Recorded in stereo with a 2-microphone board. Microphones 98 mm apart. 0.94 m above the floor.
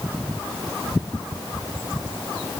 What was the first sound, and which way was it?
Only background noise.